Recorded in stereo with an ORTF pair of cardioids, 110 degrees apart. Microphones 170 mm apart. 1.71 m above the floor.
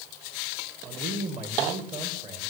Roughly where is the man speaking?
Ahead right.